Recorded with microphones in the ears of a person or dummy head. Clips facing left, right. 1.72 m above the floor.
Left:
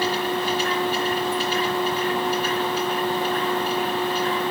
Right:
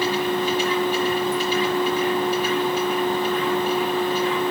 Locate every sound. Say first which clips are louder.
0.0 s a machine running: right 2 dB; 15° right (ahead or behind), 4.5 m